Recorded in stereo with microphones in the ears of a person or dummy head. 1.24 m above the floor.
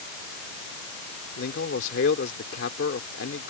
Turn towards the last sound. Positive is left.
turn(degrees=70)  # may be behind; listen again after turning